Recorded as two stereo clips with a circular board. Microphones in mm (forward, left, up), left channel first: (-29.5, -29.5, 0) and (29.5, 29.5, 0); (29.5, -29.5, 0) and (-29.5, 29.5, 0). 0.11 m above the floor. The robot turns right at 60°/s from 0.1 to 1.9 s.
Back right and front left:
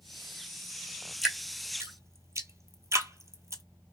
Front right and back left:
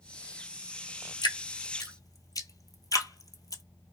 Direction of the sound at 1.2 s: 50° right.